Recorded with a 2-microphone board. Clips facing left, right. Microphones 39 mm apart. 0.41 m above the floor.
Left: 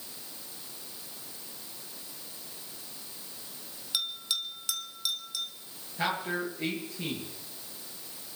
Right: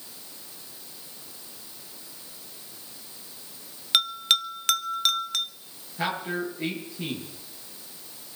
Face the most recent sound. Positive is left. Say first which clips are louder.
# right 2 dB
turn(degrees=0)  # may be behind; listen again after turning